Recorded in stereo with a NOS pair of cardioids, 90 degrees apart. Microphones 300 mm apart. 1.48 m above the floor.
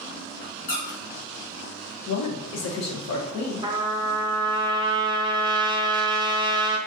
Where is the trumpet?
15° right, 0.5 m.